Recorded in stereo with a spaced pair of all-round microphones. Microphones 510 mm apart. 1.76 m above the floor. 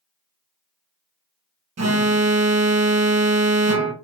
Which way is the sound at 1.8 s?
30° right (ahead or behind).